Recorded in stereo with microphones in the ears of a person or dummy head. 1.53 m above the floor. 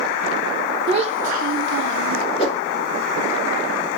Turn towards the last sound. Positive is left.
turn(degrees=35)  # may be behind; listen again after turning